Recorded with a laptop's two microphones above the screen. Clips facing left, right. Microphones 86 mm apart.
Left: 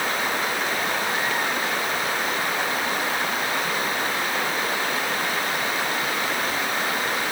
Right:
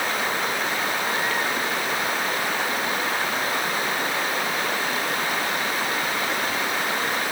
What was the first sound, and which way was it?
Only background noise.